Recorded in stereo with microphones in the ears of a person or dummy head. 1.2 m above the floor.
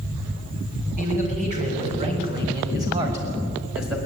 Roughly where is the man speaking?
Right.